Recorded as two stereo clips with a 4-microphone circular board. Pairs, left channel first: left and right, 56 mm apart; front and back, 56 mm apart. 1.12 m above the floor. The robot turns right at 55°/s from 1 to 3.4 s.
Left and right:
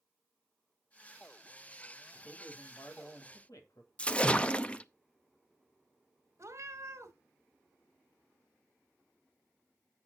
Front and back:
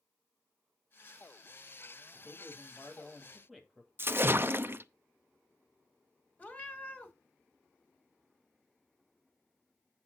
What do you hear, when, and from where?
2.1 s a man speaking: 20° left, 2.5 m; by 3.9 s 90° left, 2.5 m
4.0 s a splash: 150° left, 0.5 m
6.4 s a cat meowing: 60° right, 1.7 m